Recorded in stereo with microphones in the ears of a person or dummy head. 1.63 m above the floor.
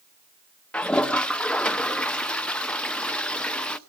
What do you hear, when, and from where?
0.7 s a toilet flushing: 5° left (ahead or behind), 0.7 m